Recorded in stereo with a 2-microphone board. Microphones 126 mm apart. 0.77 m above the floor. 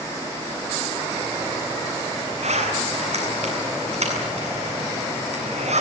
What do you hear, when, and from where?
2.4 s a zipper: 65° right (ahead or behind), 7.5 m